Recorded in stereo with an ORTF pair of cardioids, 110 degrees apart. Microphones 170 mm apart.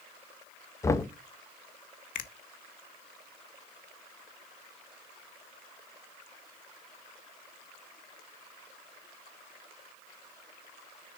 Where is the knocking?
15° left, 0.7 m.